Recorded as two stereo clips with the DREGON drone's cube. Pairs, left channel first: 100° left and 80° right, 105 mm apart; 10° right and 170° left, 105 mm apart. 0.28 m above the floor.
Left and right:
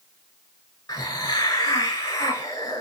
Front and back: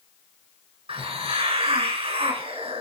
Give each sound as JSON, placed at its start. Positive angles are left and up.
{"t": 0.9, "sound": "a hiss", "azimuth_deg": 160, "distance_m": 3.5}